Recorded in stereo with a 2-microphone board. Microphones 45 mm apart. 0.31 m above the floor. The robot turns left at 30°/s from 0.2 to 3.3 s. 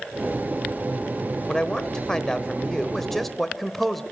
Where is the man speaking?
20° left (ahead or behind), 0.9 m; by 4.0 s 5° left (ahead or behind), 0.9 m.